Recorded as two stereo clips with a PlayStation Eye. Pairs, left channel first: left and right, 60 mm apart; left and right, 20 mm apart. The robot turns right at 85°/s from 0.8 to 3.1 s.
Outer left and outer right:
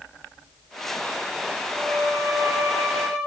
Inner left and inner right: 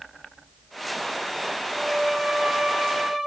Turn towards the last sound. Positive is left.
turn(degrees=-30)